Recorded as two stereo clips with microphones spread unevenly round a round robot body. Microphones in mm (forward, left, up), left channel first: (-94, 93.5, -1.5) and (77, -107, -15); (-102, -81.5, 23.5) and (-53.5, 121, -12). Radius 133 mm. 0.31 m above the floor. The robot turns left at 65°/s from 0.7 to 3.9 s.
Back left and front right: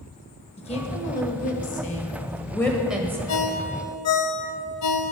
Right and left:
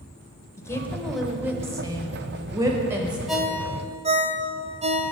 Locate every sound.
0.6 s a woman speaking: 175° left, 0.9 m; by 3.2 s 15° left, 0.9 m
3.3 s a ringtone: 160° left, 0.9 m; by 5.1 s 120° left, 0.9 m